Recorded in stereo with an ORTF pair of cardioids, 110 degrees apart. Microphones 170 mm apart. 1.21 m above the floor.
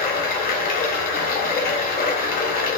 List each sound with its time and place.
0.0 s running water: 60° left, 0.9 m